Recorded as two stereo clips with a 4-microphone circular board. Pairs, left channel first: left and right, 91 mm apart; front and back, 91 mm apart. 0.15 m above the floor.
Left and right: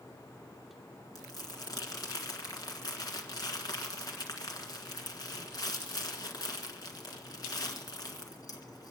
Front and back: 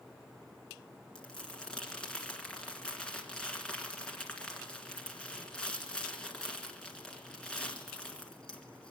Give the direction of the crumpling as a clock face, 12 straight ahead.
9 o'clock.